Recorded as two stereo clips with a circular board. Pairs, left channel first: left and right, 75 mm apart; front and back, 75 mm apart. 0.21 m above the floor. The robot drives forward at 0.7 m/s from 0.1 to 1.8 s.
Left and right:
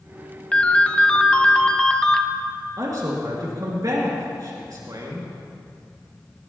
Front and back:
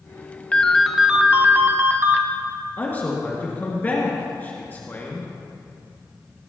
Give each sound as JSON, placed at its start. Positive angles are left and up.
{"t": 0.5, "sound": "a ringtone", "azimuth_deg": 45, "distance_m": 0.9}
{"t": 2.8, "sound": "a man speaking", "azimuth_deg": -65, "distance_m": 3.0}